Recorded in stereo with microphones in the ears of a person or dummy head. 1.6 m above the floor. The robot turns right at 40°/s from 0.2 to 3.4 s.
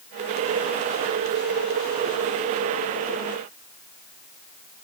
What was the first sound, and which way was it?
Only background noise.